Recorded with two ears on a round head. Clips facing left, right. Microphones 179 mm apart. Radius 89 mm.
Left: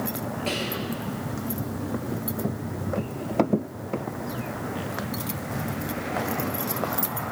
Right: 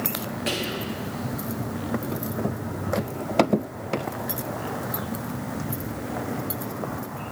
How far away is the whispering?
About 0.9 m.